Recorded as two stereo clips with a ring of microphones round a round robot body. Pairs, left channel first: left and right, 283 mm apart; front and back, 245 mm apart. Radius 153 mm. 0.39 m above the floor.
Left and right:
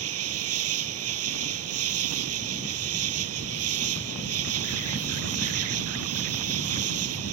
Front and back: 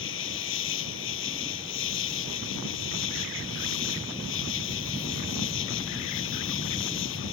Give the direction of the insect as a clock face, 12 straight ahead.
2 o'clock.